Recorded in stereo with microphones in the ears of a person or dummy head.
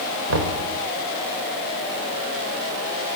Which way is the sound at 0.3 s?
75° right (ahead or behind).